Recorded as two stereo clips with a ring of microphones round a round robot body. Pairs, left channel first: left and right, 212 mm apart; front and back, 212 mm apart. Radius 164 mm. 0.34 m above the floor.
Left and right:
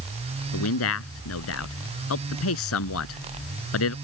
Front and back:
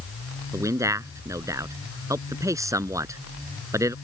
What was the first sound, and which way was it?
A man speaking, 105° left.